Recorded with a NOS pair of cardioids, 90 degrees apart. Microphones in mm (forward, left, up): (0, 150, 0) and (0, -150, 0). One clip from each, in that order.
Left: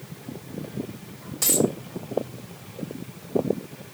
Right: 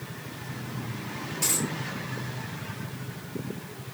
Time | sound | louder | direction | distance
1.4 | a dropped coin | left 7 dB | 65° left | 3 m